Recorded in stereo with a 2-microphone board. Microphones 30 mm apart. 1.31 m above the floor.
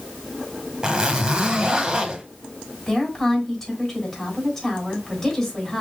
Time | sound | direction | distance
0.8 | a zipper | 25° right (ahead or behind) | 1.3 m
2.9 | a woman speaking | 20° left (ahead or behind) | 4 m